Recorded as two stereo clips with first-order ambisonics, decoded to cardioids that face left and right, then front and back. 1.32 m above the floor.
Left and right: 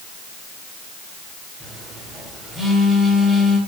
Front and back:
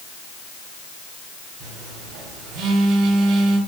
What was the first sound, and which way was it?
A phone buzzing, 165° right.